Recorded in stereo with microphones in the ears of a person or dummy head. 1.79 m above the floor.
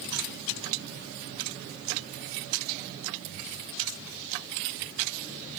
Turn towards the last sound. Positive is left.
No sound to turn to.